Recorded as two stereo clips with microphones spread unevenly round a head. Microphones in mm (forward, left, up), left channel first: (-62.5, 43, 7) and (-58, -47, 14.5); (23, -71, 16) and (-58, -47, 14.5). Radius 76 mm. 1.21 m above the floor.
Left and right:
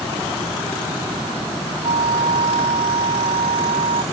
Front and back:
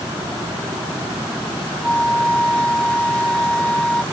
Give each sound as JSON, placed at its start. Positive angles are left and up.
{"t": 1.8, "sound": "a flute", "azimuth_deg": -95}